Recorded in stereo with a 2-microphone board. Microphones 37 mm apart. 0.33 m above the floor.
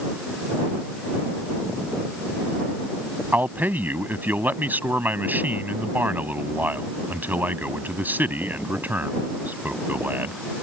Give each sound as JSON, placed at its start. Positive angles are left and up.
{"t": 3.3, "sound": "a man speaking", "side_deg": -60}